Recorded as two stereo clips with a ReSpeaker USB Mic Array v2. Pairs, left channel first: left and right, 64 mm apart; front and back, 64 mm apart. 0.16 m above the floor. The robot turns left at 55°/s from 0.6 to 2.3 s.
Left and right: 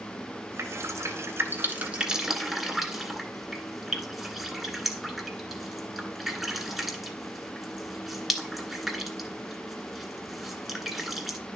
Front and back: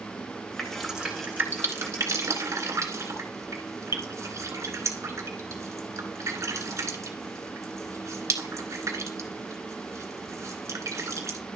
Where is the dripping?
80° right, 1.7 m; by 11.4 s 175° right, 1.7 m.